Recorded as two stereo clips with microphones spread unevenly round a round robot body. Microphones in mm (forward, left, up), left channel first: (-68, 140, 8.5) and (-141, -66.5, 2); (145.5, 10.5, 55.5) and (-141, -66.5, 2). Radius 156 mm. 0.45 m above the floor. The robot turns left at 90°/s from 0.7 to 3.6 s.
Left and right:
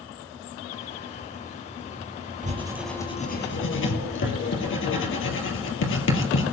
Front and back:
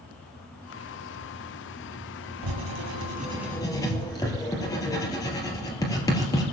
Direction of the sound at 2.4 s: 160° right.